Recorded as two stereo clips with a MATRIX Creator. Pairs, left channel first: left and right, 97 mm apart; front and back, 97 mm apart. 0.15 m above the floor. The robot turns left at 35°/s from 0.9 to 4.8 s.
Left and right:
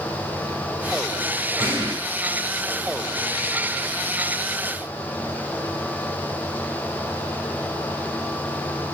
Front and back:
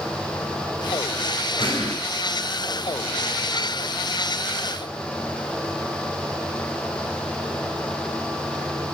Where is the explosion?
30° right, 3 m; by 2.0 s 40° right, 3 m.